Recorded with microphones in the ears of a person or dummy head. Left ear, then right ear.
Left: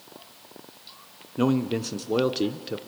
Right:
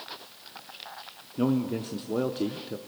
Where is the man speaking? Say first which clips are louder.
Left 3 dB; 25° left (ahead or behind), 0.6 m.